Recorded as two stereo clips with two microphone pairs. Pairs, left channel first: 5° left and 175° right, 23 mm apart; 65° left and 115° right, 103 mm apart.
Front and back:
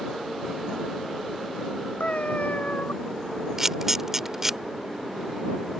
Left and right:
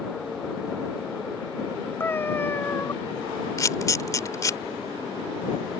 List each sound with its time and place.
2.0 s a cat meowing: 5° right
3.6 s a camera shutter: 115° left